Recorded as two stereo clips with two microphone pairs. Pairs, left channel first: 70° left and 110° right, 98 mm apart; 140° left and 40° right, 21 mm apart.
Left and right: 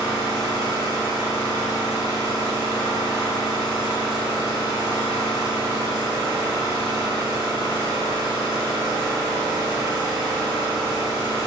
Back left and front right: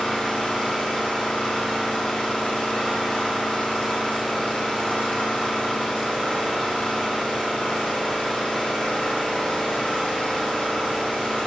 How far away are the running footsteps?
I don't hear running footsteps.